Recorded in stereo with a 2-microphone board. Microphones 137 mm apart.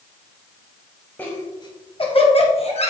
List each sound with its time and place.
1.2 s laughter: 15° left (ahead or behind), 1.3 m; by 2.9 s 50° left (ahead or behind), 2.5 m